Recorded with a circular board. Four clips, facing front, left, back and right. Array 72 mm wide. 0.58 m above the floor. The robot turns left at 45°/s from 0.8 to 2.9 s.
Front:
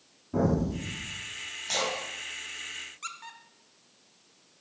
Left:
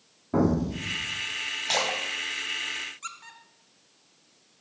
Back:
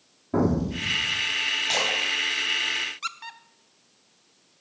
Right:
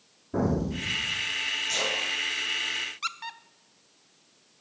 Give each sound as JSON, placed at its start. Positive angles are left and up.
{"t": 0.3, "sound": "an explosion", "azimuth_deg": 125, "distance_m": 3.5}
{"t": 1.7, "sound": "a splash", "azimuth_deg": 105, "distance_m": 4.5}
{"t": 3.0, "sound": "a squeak", "azimuth_deg": -120, "distance_m": 0.6}